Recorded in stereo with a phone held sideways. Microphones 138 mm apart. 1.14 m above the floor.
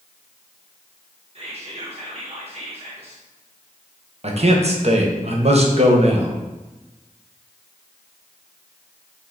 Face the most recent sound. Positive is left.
turn(degrees=-50)  # may be behind; listen again after turning